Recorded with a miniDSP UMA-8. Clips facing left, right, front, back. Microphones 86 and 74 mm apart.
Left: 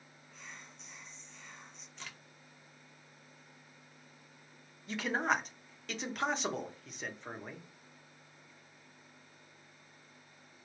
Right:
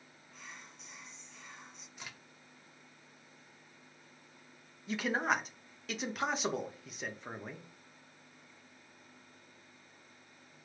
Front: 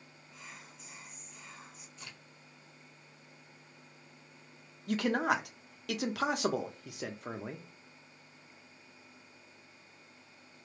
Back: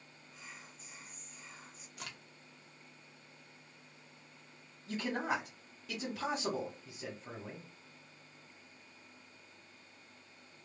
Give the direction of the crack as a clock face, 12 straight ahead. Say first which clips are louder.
Even, back 4 dB; 6 o'clock.